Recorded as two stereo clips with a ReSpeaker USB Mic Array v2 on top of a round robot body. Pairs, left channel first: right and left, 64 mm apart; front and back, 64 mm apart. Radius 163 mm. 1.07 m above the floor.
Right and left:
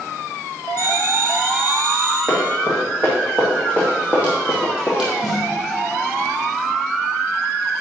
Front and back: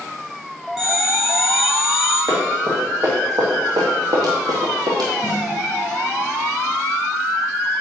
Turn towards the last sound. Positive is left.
turn(degrees=55)